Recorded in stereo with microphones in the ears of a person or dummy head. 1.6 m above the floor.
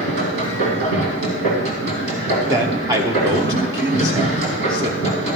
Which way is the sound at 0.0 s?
55° right (ahead or behind).